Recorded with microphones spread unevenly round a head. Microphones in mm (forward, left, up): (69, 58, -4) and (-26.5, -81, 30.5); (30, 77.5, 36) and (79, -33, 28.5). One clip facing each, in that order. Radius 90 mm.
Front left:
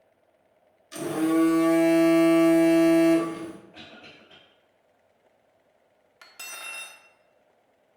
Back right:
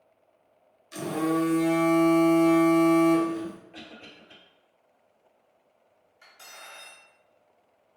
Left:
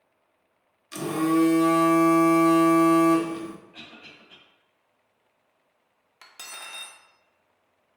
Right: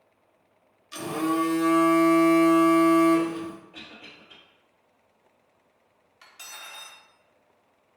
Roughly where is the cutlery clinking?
Left.